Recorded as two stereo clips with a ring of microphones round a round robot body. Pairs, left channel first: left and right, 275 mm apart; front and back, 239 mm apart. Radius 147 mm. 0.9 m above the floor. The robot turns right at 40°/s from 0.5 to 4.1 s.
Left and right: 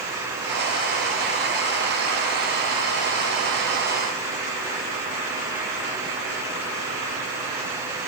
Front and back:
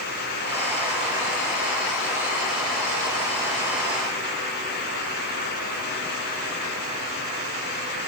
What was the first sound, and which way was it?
Only background noise.